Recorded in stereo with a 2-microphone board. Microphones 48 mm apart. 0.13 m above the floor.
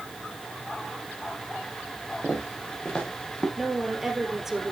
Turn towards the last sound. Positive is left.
turn(degrees=-5)  # may be behind; listen again after turning